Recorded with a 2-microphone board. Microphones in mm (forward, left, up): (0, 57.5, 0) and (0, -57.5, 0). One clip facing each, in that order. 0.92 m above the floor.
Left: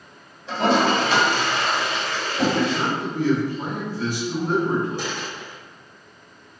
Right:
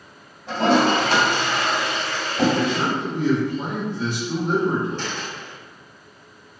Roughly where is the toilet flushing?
Right.